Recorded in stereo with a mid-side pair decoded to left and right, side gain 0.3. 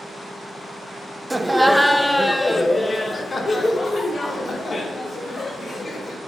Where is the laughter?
20° right, 1.2 m; by 6.2 s 60° left, 4 m.